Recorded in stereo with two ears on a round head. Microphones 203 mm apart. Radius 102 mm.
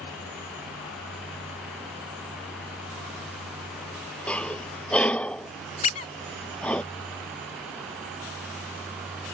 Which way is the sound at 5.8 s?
30° left (ahead or behind).